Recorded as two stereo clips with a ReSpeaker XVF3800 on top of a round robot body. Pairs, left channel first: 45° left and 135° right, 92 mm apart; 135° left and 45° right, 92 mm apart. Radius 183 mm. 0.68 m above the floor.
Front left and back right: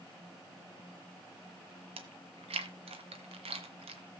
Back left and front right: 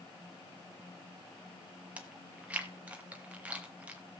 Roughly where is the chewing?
Behind right.